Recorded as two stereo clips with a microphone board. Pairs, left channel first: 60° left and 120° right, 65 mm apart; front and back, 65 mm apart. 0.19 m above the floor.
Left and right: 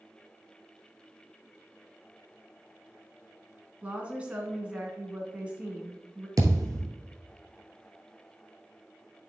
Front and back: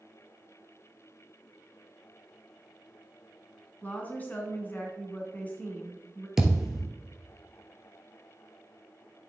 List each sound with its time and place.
3.8 s a woman speaking: 55° right, 1.8 m
6.4 s a thud: 95° right, 1.5 m